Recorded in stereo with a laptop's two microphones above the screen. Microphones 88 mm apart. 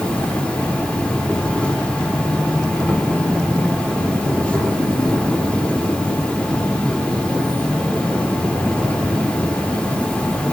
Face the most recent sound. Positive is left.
turn(degrees=15)  # may be behind; listen again after turning